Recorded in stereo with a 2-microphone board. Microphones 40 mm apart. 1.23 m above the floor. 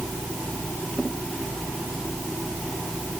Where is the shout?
I don't hear a shout.